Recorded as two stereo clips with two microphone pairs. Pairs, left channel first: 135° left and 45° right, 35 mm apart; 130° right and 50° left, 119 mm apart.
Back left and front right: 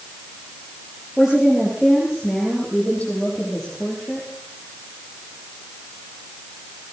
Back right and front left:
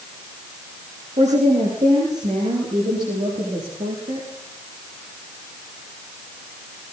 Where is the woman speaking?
40° left, 6.5 m; by 4.3 s 60° left, 9 m.